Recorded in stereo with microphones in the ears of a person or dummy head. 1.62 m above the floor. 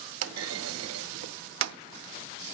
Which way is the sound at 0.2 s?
80° right.